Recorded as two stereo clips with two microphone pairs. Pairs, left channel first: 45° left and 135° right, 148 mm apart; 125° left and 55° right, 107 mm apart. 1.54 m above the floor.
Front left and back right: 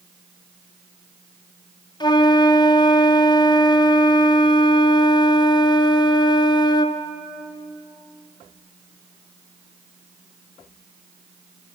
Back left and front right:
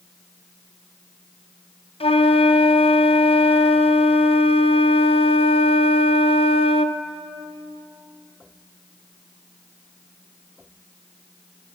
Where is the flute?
105° left, 0.6 m.